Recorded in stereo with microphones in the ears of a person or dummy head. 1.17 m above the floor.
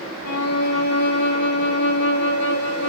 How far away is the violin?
About 2 m.